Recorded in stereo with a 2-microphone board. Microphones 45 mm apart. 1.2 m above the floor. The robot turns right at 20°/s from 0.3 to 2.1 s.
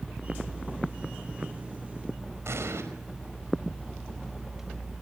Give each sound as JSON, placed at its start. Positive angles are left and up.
{"t": 2.5, "sound": "an explosion", "side_deg": -75, "distance_m": 5.0}